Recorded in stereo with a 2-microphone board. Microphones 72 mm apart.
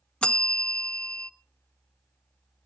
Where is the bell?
15° left (ahead or behind), 0.9 m.